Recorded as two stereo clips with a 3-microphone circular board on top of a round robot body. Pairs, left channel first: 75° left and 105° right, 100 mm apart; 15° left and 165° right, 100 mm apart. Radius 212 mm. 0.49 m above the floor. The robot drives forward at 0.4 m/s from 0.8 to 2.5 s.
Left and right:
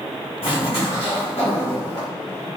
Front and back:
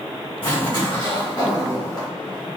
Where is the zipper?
55° left, 1.6 m; by 2.1 s 75° left, 1.4 m.